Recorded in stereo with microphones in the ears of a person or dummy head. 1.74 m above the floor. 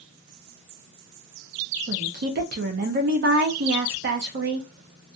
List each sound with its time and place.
1.9 s a woman speaking: 45° right (ahead or behind), 0.6 m